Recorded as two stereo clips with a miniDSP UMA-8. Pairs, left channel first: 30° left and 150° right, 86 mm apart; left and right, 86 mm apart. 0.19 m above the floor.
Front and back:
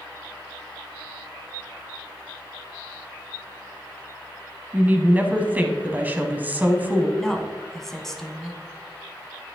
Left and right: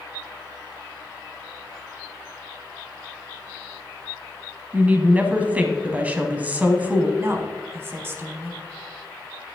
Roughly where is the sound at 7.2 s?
Ahead right.